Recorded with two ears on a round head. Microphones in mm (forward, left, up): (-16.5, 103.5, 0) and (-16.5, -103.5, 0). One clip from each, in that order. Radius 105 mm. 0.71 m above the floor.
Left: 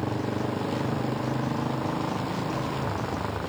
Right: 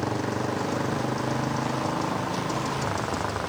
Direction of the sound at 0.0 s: 90° right.